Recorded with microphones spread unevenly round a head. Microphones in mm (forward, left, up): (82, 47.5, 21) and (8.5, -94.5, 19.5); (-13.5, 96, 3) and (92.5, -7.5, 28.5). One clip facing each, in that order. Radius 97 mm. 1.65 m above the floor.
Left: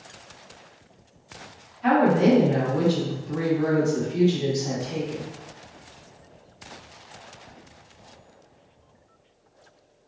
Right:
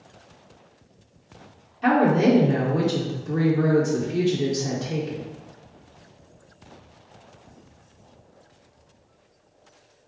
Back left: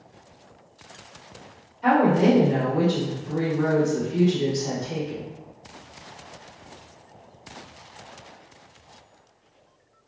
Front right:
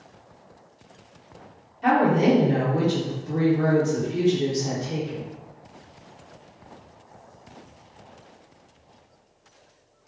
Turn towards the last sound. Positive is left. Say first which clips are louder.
# even, back left 1 dB
turn(degrees=-110)